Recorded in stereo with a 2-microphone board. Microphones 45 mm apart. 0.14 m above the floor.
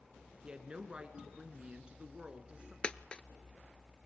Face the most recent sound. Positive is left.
turn(degrees=25)  # may be behind; listen again after turning